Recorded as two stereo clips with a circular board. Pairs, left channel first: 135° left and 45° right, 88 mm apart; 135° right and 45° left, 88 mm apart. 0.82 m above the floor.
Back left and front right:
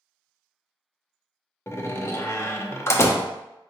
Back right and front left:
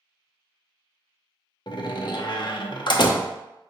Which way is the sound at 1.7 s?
165° right.